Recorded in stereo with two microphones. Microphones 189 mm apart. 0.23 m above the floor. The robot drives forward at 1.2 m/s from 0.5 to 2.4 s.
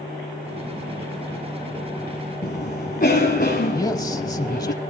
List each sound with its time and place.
2.4 s a cough: 55° left (ahead or behind), 2 m
3.7 s a man speaking: 20° left (ahead or behind), 1.0 m